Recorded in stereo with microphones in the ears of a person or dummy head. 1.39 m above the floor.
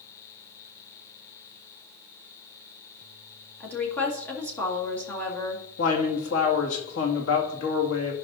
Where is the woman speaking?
10° left (ahead or behind), 2.0 m.